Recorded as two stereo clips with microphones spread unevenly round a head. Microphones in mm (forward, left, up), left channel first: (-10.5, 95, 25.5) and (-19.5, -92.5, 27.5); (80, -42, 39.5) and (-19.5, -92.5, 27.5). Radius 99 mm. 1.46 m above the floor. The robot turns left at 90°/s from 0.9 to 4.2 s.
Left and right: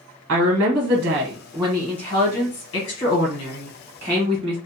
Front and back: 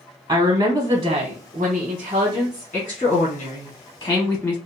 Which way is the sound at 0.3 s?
110° right.